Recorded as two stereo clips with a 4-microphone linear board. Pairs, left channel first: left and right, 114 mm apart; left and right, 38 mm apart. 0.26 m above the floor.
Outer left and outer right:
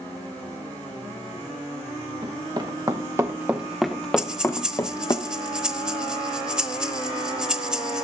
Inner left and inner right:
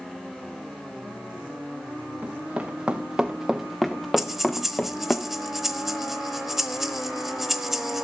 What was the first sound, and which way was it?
Running footsteps, 45° right (ahead or behind).